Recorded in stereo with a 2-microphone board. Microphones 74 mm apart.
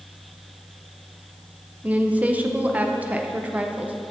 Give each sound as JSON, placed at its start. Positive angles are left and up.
{"t": 1.8, "sound": "a woman speaking", "side_deg": -20, "distance_m": 0.6}